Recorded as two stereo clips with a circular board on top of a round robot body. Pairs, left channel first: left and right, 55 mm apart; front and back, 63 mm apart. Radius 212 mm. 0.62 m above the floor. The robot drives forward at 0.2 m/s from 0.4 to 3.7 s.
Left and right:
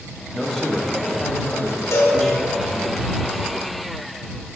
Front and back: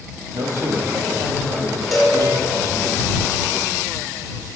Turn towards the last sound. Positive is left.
turn(degrees=100)